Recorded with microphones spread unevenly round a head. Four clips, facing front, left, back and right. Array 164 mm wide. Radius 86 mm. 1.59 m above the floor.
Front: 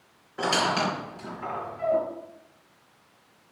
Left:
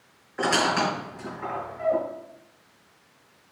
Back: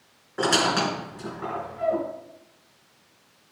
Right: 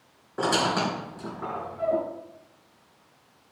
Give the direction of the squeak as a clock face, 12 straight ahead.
4 o'clock.